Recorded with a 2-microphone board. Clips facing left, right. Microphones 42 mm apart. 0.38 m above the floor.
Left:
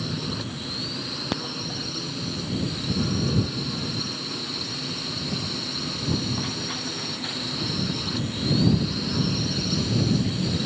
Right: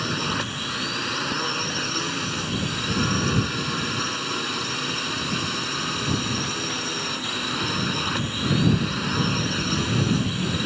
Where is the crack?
70° left (ahead or behind).